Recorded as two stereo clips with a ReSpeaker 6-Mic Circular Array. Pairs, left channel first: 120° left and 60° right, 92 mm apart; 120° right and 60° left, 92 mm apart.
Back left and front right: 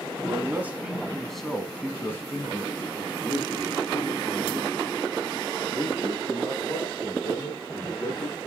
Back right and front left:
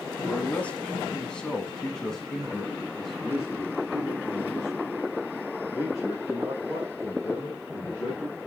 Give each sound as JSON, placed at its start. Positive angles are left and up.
{"t": 0.3, "sound": "a man speaking", "azimuth_deg": -65, "distance_m": 1.3}